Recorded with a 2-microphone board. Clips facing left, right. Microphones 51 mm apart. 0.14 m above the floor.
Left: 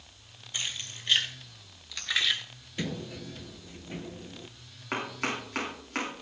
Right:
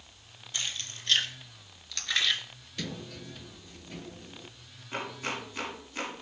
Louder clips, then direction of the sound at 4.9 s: Left 3 dB; 70° left (ahead or behind).